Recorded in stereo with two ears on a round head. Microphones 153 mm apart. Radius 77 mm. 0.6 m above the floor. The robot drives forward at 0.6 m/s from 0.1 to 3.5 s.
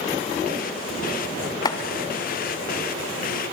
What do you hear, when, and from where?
1.6 s chopping: 25° left (ahead or behind), 1.2 m